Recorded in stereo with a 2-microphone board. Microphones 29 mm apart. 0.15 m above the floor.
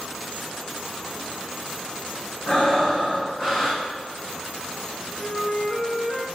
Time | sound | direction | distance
2.5 | breathing | 30° left (ahead or behind) | 3.5 m
5.2 | a flute | 10° left (ahead or behind) | 2 m